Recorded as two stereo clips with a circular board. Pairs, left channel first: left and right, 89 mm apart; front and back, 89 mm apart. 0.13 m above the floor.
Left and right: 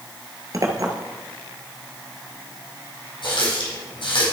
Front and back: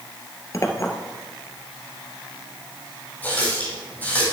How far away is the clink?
About 1.3 m.